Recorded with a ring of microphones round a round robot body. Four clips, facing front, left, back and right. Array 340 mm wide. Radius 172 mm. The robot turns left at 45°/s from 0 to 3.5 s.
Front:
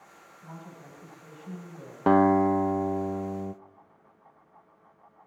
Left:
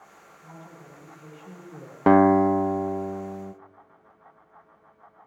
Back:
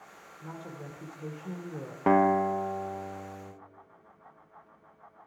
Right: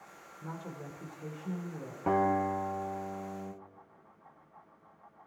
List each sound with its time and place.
0.4 s a woman speaking: 125° right, 3 m; by 2.0 s 165° left, 3 m
2.1 s a guitar: 80° left, 0.5 m; by 3.5 s 20° left, 0.5 m